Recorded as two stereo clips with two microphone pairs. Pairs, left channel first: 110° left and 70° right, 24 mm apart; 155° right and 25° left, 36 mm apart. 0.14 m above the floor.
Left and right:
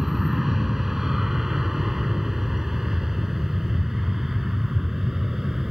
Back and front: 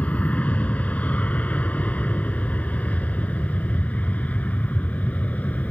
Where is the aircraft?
140° right; by 5.7 s 130° right.